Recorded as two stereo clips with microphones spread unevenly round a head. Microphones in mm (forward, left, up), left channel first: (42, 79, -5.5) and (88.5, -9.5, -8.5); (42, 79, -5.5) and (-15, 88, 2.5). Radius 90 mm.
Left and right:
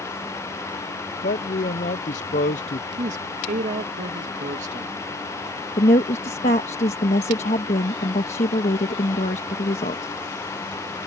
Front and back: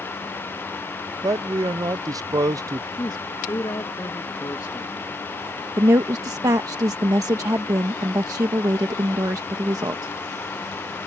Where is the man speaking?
140° left.